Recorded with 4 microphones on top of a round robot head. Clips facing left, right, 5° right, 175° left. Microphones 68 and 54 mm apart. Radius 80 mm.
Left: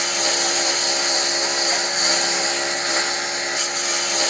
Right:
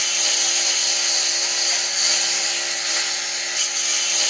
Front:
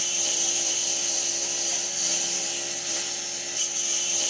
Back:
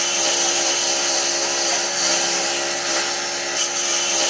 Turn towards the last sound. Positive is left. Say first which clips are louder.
# left 5 dB, back 11 dB
turn(degrees=145)